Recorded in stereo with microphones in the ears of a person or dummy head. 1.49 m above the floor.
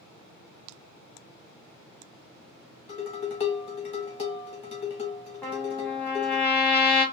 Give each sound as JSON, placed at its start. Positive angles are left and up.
{"t": 2.9, "sound": "dishes clattering", "side_deg": 30, "distance_m": 0.7}
{"t": 5.4, "sound": "a trumpet", "side_deg": 15, "distance_m": 1.1}